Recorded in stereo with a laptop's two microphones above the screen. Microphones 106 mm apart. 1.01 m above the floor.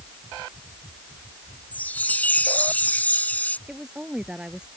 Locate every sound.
1.7 s a chime: 15° left (ahead or behind)
3.7 s a woman speaking: 10° right (ahead or behind)